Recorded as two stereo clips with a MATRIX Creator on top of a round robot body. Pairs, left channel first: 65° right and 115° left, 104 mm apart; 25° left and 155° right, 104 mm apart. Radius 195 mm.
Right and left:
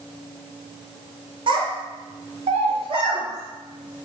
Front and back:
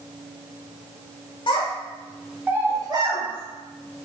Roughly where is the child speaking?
Left.